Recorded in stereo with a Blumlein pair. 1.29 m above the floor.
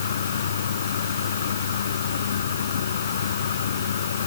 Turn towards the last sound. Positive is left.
turn(degrees=65)